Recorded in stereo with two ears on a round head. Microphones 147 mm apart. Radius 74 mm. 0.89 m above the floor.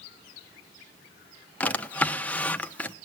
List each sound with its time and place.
1.6 s a drawer: 10° left (ahead or behind), 0.8 m